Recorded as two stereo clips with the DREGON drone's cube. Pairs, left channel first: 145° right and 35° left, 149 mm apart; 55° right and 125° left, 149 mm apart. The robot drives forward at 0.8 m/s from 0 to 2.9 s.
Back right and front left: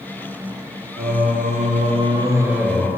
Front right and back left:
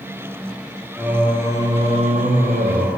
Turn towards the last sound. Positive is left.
turn(degrees=130)